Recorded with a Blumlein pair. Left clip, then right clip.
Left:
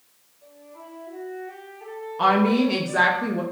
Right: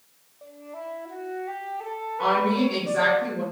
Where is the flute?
45° right, 0.6 m.